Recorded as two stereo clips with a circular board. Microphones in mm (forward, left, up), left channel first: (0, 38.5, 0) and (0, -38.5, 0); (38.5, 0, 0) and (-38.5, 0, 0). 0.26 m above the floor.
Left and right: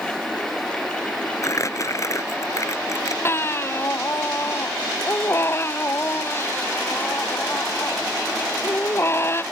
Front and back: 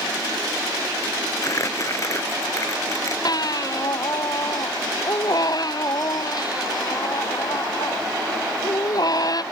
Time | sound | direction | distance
1.4 | crumpling | 45° left | ?
3.2 | a baby crying | 30° left | ?